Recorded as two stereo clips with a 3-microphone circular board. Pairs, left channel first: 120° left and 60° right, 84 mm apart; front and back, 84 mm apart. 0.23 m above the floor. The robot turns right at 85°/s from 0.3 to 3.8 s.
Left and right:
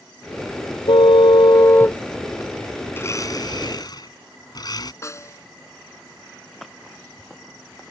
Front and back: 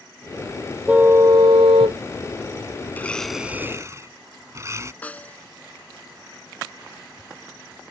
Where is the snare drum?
70° left.